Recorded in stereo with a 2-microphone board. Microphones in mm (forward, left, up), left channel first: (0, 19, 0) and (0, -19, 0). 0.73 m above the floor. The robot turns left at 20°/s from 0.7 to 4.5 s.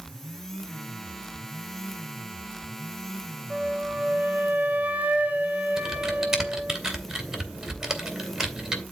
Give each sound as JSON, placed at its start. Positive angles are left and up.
{"t": 3.5, "sound": "a flute", "side_deg": -25, "distance_m": 1.3}
{"t": 5.8, "sound": "typing on a keyboard", "side_deg": -10, "distance_m": 2.5}